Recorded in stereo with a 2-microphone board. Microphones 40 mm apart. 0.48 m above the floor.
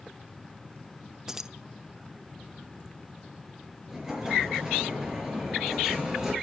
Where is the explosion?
10° right (ahead or behind), 5.5 m.